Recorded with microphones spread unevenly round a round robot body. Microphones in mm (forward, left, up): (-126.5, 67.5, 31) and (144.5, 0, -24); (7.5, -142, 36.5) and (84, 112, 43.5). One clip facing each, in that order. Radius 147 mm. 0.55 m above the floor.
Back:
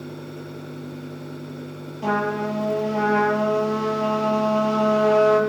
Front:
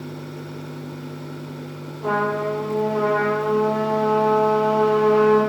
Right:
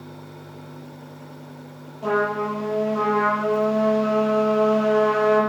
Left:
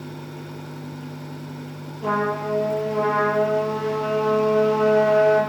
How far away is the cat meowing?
No cat meowing in this recording.